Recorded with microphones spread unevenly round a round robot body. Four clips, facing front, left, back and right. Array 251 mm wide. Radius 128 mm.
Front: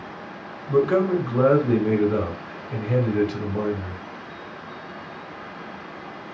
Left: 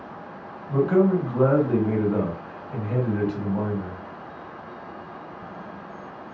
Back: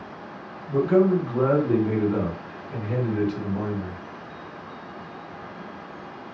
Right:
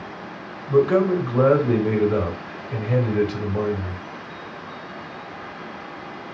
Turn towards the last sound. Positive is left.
turn(degrees=-65)